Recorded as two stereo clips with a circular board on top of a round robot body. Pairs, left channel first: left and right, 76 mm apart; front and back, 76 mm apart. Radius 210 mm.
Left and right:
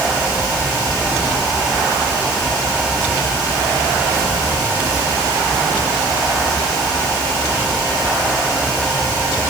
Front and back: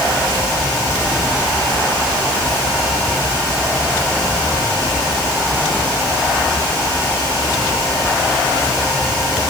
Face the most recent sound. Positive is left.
No sound to turn to.